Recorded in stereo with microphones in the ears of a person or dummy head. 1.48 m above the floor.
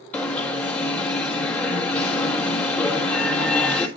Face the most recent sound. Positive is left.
turn(degrees=0)  # may be behind; listen again after turning